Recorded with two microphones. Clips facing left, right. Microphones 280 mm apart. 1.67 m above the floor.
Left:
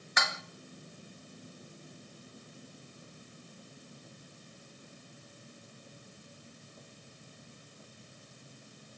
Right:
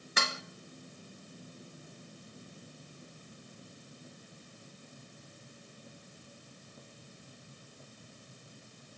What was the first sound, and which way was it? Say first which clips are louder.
Dishes clattering: right 1 dB; 40° right (ahead or behind).